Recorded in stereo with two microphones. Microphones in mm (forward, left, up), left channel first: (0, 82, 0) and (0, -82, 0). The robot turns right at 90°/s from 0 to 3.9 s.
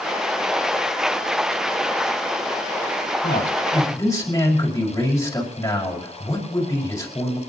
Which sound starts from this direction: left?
A man speaking, at 3.2 s.